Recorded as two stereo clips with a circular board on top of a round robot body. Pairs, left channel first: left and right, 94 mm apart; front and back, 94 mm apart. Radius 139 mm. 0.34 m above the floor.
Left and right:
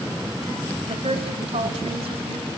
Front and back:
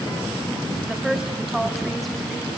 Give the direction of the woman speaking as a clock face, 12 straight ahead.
3 o'clock.